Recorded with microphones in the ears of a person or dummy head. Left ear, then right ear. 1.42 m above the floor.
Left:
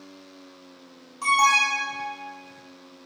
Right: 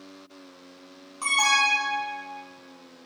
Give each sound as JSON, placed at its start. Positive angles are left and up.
{"t": 1.2, "sound": "an alarm", "side_deg": -20, "distance_m": 0.7}